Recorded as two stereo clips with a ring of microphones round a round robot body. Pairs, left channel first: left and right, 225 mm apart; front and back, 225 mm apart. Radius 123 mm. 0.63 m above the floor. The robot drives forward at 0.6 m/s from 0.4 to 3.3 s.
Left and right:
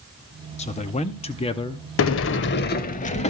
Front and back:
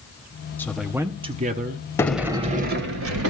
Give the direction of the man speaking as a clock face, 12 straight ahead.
10 o'clock.